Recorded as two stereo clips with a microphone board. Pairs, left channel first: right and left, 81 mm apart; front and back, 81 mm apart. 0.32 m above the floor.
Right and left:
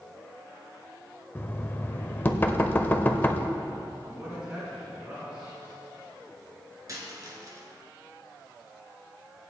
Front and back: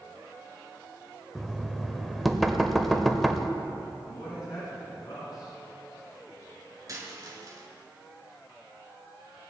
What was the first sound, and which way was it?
Knocking, 85° right.